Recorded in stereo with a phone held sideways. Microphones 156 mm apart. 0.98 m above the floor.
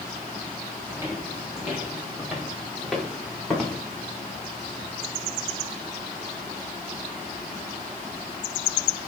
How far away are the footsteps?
About 5.5 m.